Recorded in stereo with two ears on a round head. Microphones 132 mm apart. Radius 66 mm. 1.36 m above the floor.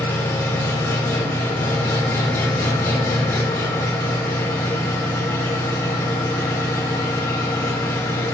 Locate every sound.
0.0 s an engine running: 15° left (ahead or behind), 1.8 m